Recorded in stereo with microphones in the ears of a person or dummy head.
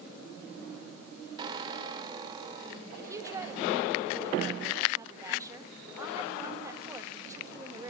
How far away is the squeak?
About 3 m.